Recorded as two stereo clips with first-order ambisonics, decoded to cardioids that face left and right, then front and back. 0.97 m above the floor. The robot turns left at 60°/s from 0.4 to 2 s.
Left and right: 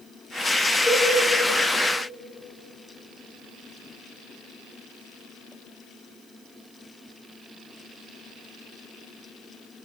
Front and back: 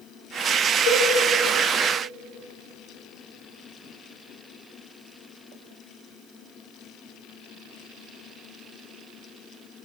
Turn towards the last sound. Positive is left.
turn(degrees=-60)